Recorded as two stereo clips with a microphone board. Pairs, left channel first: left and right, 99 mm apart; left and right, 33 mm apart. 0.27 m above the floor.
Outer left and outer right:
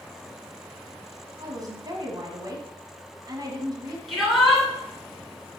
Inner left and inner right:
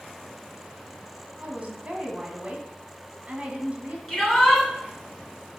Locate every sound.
1.4 s a woman speaking: 40° right (ahead or behind), 1.7 m
4.1 s a shout: centre (ahead or behind), 4.5 m